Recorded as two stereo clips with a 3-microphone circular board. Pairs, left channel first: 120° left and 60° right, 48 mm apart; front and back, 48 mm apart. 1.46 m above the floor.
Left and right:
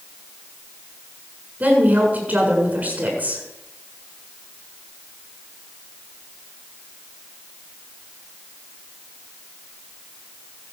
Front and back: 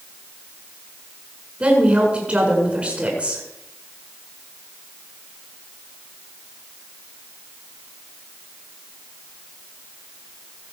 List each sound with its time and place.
1.6 s a woman speaking: 115° right, 7 m